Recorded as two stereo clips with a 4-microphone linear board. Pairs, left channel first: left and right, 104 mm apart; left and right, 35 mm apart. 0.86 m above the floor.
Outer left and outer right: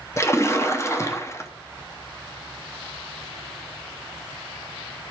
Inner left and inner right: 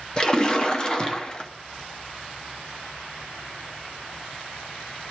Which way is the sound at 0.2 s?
30° left (ahead or behind).